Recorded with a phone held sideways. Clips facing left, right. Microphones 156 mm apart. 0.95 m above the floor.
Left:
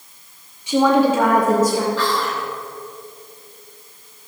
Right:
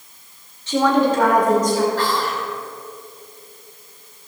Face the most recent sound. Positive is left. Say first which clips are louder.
# even
turn(degrees=-55)  # may be behind; listen again after turning